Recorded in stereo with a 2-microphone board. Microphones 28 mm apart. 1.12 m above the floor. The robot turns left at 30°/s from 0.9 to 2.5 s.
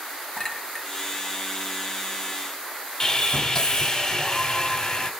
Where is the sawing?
25° left (ahead or behind), 0.9 m.